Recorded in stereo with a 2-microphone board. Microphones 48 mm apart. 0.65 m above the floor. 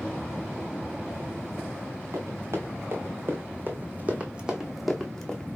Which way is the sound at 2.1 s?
70° right (ahead or behind).